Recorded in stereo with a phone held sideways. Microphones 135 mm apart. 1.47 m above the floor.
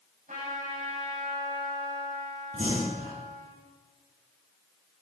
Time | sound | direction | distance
0.3 | a trumpet | 75° right (ahead or behind) | 7.5 m
2.5 | breathing | 60° right (ahead or behind) | 4 m